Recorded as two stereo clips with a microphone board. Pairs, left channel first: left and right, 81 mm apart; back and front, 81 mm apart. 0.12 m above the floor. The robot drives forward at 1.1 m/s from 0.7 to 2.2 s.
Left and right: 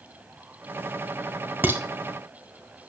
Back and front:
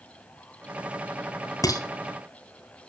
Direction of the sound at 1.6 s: 150° right.